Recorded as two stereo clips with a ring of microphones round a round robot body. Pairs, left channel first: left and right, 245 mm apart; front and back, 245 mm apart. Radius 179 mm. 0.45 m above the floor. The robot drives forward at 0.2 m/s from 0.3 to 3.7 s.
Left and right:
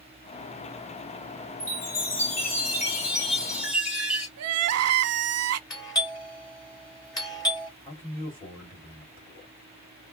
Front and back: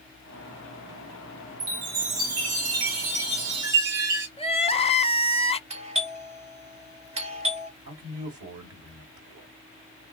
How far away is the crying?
About 0.7 m.